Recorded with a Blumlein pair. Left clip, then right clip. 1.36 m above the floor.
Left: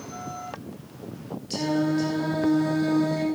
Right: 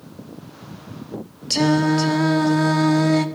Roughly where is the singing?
Ahead right.